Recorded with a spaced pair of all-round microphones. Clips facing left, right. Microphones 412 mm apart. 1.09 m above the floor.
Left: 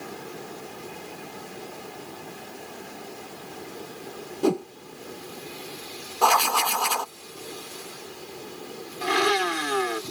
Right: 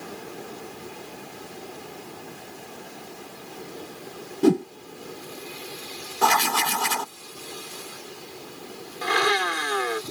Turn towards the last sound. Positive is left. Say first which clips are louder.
# left 2 dB
turn(degrees=45)  # may be behind; listen again after turning